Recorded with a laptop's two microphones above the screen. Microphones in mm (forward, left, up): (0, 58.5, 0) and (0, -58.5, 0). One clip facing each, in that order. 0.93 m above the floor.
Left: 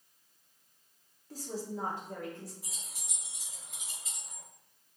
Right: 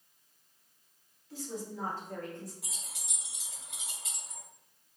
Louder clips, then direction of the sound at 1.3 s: Left 1 dB; 45° left (ahead or behind).